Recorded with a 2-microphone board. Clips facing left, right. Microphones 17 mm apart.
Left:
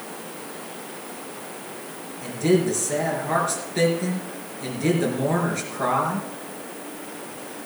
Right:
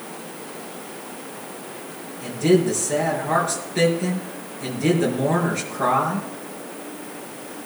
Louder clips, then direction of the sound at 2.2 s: Right 2 dB; centre (ahead or behind).